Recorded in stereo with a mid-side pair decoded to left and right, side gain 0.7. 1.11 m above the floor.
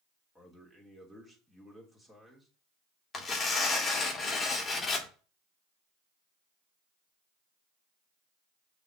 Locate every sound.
0.3 s a man speaking: straight ahead, 3 m
3.1 s tearing paper: 25° left, 2 m